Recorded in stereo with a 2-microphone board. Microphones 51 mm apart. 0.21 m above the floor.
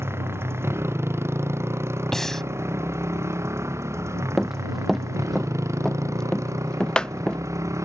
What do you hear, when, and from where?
0.0 s a motorcycle: 55° right (ahead or behind); by 7.8 s 75° right (ahead or behind)
2.1 s breathing: 10° left (ahead or behind)
4.4 s running footsteps: 5° right (ahead or behind); by 7.4 s 20° left (ahead or behind)